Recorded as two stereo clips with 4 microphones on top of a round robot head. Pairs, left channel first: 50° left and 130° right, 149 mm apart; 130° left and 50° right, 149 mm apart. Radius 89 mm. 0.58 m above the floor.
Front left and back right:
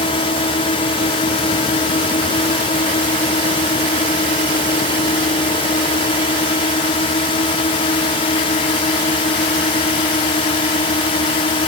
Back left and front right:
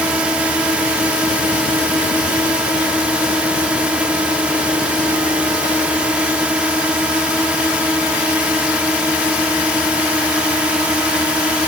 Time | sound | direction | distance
0.0 | a drone | 30° left | ?